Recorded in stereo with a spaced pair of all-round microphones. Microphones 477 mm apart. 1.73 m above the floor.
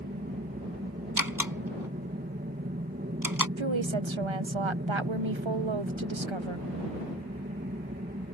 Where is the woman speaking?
70° right (ahead or behind).